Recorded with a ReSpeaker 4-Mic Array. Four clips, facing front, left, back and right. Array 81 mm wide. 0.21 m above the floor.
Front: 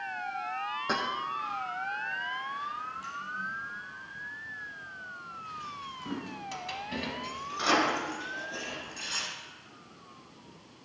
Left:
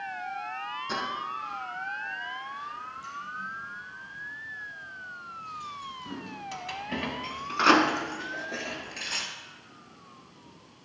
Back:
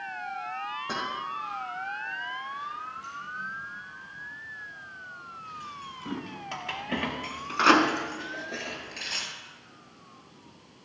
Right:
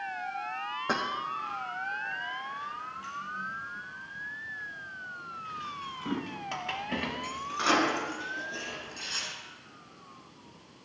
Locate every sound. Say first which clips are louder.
0.9 s keys jangling: right 2 dB, front 2 dB; 70° right, 6 m; by 9.3 s 125° left, 3 m